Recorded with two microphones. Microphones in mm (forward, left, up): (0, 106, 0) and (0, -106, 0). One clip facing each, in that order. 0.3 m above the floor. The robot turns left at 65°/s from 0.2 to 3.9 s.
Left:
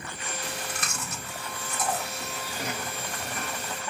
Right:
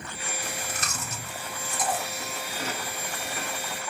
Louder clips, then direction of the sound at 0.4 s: Even; 35° right (ahead or behind).